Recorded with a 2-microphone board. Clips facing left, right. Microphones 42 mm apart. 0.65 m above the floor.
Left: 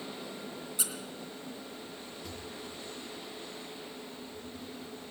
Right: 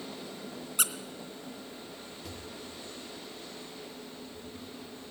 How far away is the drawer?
About 4.5 m.